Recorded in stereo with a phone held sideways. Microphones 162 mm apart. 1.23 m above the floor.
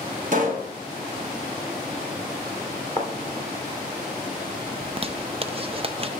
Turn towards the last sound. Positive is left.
turn(degrees=-35)  # may be behind; listen again after turning